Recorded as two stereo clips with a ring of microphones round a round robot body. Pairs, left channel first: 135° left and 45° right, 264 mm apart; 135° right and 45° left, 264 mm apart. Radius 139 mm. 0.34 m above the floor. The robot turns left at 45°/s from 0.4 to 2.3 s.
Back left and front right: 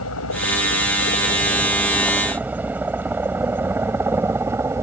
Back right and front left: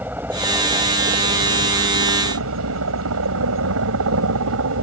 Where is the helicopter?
125° left; by 4.8 s 35° left.